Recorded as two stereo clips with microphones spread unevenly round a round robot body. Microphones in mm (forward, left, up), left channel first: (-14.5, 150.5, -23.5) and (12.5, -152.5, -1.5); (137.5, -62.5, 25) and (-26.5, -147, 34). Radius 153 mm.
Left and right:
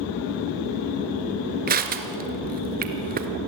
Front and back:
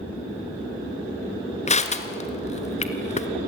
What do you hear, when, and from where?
1.7 s crushing: 25° right, 2.0 m